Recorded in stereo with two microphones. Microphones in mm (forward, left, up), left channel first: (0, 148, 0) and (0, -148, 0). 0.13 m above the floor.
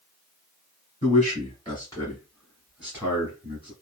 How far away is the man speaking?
About 1.8 m.